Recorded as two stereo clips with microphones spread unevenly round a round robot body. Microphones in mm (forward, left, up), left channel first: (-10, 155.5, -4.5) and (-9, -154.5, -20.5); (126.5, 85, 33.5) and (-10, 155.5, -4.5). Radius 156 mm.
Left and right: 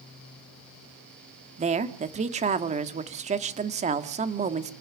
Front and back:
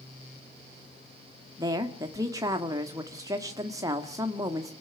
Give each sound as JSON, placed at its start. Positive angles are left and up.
{"t": 1.6, "sound": "a woman speaking", "azimuth_deg": -150, "distance_m": 1.4}